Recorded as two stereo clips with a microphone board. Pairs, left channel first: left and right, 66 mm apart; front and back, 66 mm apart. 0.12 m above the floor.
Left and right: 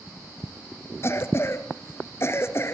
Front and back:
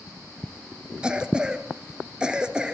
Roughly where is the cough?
Left.